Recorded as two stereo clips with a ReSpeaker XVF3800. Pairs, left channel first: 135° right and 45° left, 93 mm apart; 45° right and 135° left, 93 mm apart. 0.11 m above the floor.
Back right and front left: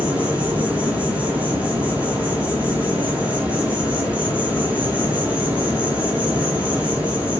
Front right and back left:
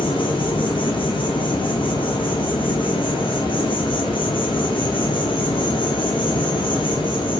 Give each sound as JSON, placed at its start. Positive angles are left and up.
{"t": 0.0, "sound": "an insect", "azimuth_deg": -30, "distance_m": 0.8}